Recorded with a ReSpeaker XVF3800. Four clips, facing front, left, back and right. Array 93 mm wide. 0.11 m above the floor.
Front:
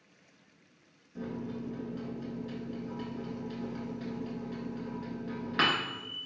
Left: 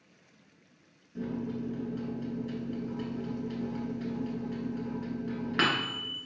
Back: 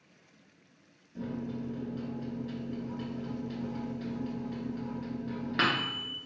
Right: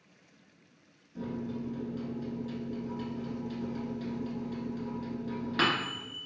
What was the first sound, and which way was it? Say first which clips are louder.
A microwave: left 2 dB, back 1 dB; 85° left.